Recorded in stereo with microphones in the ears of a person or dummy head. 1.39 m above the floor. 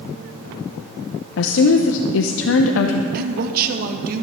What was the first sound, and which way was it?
A woman speaking, 70° left (ahead or behind).